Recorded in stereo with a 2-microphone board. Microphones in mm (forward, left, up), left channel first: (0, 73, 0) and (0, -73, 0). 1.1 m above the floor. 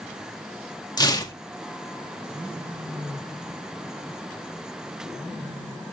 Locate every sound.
1.0 s tearing paper: 30° left (ahead or behind), 1.9 m